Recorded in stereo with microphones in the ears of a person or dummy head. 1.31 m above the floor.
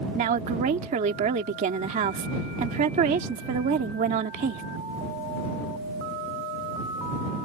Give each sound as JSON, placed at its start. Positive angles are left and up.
{"t": 0.1, "sound": "a woman speaking", "side_deg": -40}